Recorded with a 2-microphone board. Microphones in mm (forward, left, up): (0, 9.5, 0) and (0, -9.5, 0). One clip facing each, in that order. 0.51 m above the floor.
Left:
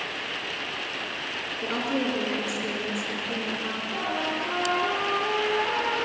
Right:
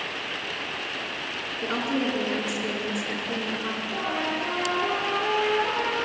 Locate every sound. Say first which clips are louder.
1.6 s a woman speaking: right 1 dB; 10° right (ahead or behind), 6.5 m
3.9 s a trumpet: even; 30° right (ahead or behind), 7.5 m